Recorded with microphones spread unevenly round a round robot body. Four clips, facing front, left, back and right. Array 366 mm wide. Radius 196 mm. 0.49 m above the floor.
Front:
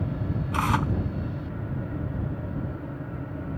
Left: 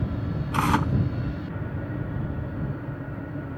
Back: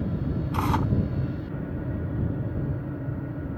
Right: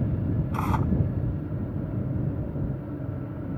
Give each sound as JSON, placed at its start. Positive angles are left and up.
{"t": 0.5, "sound": "tearing paper", "azimuth_deg": 105}